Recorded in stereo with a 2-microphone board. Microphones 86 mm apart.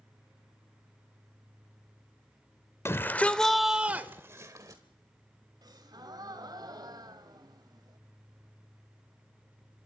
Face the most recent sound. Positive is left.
turn(degrees=-55)  # may be behind; listen again after turning